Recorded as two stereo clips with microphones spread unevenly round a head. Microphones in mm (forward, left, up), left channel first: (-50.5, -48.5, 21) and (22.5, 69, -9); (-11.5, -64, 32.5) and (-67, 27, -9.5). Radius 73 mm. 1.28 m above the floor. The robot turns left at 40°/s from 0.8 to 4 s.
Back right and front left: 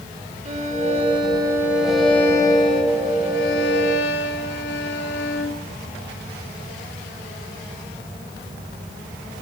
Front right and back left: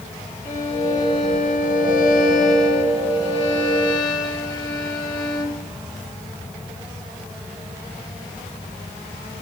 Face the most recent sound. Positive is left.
turn(degrees=-115)